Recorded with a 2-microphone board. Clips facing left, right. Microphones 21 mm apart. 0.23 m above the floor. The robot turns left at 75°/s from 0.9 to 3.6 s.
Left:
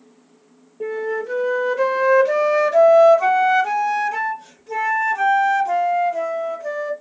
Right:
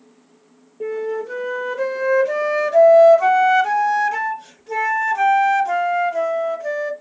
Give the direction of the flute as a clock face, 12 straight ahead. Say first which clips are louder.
Even; 7 o'clock.